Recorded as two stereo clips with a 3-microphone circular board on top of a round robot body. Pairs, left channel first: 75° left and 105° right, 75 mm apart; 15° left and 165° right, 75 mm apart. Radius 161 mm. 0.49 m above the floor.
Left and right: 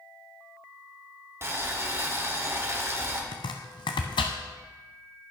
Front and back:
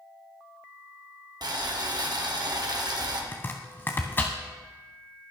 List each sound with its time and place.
1.4 s boiling: 155° right, 2.0 m
3.3 s chopping: 80° left, 0.6 m